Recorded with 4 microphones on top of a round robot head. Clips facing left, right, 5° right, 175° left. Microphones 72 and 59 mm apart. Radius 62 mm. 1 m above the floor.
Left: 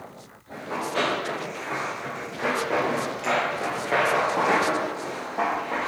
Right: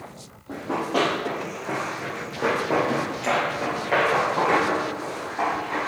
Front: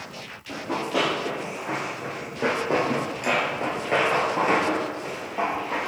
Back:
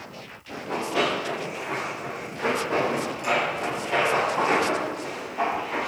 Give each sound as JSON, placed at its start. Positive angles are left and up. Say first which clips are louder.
{"t": 0.5, "sound": "running footsteps", "louder": "right 4 dB, front 1 dB", "azimuth_deg": -60, "distance_m": 2.0}